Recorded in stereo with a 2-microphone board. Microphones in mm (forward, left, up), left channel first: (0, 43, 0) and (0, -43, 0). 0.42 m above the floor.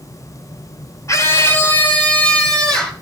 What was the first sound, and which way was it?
A scream, 35° left (ahead or behind).